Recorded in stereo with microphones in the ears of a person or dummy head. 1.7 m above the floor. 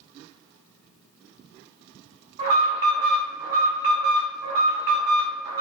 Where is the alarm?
35° right (ahead or behind), 0.8 m.